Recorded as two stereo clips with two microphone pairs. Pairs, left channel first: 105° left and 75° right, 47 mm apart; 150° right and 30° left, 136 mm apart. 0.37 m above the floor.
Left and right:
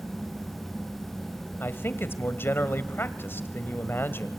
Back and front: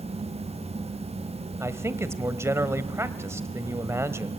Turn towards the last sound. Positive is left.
turn(degrees=95)